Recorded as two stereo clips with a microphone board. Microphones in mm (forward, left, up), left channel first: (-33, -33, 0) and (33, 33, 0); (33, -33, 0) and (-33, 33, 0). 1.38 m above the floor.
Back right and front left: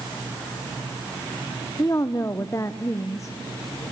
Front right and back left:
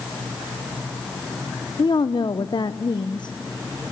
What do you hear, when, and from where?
1.8 s a woman speaking: 80° right, 1.0 m